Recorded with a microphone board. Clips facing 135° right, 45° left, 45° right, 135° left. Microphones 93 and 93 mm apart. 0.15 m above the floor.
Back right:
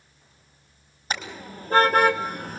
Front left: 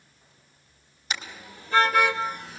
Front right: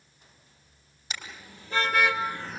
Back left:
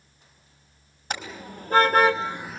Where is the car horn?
175° left, 2.5 m; by 2.6 s 125° right, 0.5 m.